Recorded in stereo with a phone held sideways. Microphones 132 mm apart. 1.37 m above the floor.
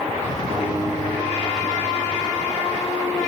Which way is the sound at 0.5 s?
50° right (ahead or behind).